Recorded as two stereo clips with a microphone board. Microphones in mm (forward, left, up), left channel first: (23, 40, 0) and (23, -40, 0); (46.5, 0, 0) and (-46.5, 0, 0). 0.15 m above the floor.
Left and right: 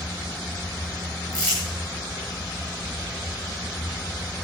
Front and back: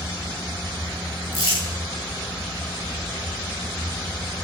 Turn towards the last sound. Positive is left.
turn(degrees=-10)